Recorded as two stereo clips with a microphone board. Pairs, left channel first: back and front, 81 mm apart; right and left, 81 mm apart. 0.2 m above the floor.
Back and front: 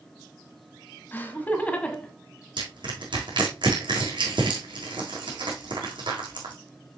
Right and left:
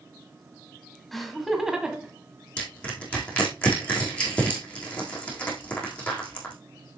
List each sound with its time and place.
1.1 s laughter: 175° right, 1.6 m; by 2.1 s 135° left, 1.5 m
2.6 s crushing: 15° right, 4 m